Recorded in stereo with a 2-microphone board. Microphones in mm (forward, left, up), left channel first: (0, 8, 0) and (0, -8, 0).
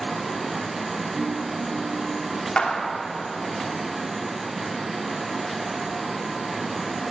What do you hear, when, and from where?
1.2 s a ringtone: 15° right (ahead or behind), 8.5 m
2.6 s a clap: 70° left (ahead or behind), 3 m